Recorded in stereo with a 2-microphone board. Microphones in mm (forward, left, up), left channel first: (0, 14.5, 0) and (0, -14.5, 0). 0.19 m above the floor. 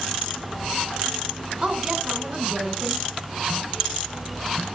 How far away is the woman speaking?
About 2 m.